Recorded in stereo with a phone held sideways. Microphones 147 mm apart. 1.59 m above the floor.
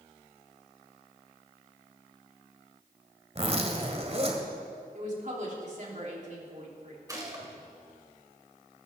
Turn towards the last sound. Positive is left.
turn(degrees=-25)  # may be behind; listen again after turning